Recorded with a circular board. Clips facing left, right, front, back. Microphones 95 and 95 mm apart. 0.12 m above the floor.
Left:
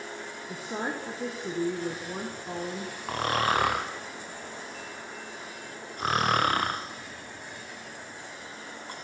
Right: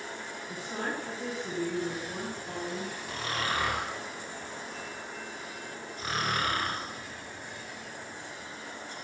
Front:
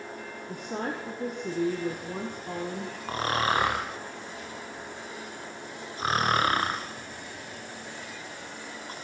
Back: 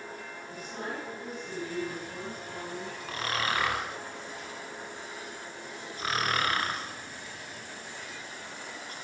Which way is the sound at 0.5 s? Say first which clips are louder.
Left 2 dB, front 5 dB; 30° left.